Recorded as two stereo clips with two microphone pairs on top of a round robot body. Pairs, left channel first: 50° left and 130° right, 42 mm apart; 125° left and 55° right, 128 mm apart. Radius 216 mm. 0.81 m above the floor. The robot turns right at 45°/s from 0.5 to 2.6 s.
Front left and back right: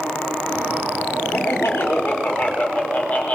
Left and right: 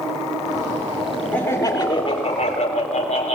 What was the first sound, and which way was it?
Laughter, 45° left.